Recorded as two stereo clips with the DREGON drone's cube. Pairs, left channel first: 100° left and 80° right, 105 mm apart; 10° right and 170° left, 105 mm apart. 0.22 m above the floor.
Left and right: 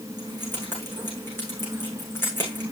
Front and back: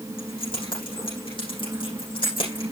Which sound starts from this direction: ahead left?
Keys jangling, at 0.2 s.